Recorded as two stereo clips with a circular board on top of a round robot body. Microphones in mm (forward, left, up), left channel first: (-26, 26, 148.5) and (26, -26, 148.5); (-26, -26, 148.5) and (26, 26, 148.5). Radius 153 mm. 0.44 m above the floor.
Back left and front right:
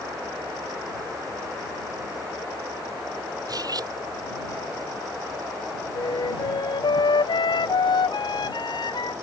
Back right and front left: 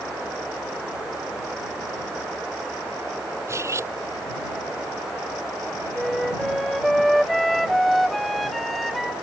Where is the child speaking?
No child speaking in this recording.